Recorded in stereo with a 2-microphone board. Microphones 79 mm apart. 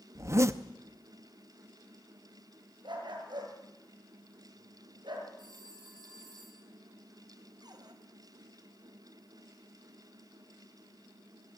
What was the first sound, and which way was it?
A zipper, 35° right (ahead or behind).